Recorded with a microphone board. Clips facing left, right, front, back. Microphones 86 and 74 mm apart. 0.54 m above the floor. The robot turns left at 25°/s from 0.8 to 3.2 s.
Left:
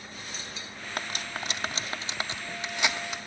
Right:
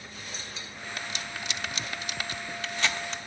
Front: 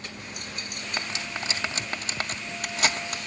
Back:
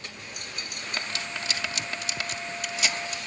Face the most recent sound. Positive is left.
turn(degrees=10)